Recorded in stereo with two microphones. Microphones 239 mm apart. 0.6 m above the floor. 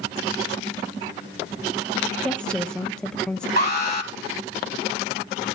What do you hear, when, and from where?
2.2 s a woman speaking: 5° left (ahead or behind), 0.6 m
3.6 s an alarm: 40° left (ahead or behind), 1.3 m